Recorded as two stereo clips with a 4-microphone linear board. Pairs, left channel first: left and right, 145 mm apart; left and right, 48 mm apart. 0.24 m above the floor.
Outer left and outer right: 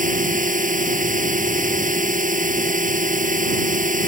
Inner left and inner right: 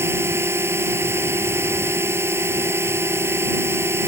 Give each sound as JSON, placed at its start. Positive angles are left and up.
{"t": 0.0, "sound": "a drone", "side_deg": -65}